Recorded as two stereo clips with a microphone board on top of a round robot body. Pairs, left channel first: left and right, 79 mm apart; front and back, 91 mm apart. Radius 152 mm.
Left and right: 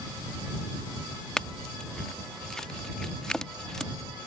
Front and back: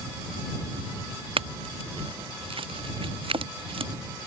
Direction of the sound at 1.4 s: 170° left.